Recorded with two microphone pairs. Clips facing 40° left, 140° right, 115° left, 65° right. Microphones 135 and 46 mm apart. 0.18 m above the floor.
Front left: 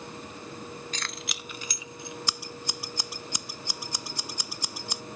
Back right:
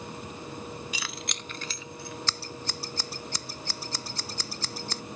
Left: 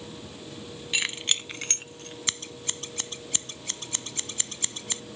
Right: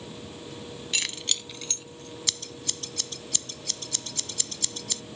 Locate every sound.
0.9 s keys jangling: 165° left; by 2.2 s 110° left
2.3 s scissors: 105° left